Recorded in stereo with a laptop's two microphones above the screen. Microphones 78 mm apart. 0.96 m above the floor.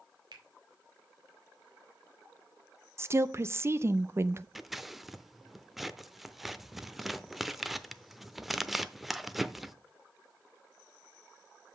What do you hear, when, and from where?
0.3 s a finger snap: 70° right (ahead or behind), 2 m
3.0 s a woman speaking: 35° right (ahead or behind), 0.6 m
4.5 s scissors: 5° right (ahead or behind), 0.6 m